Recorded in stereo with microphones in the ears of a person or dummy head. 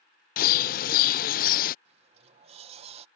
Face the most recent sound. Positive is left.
turn(degrees=-35)  # may be behind; listen again after turning